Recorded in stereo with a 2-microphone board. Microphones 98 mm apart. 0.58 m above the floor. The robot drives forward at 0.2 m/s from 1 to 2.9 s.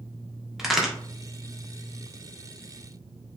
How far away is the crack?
About 0.6 m.